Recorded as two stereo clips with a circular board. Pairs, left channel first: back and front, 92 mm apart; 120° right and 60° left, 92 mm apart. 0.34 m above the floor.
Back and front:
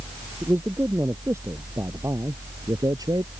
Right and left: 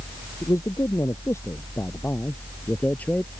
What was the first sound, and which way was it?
A man speaking, 65° right.